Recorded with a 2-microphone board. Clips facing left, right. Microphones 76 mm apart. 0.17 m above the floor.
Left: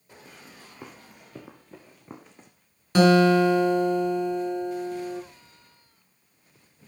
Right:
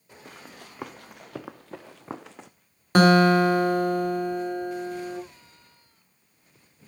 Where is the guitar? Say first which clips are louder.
Even; 50° right (ahead or behind), 1.7 m.